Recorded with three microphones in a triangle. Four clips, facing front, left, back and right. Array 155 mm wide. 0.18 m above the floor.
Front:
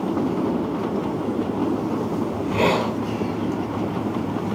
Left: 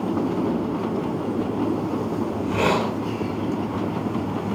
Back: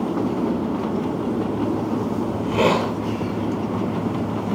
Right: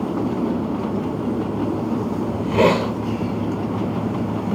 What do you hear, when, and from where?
2.3 s a hiss: 90° right, 1.6 m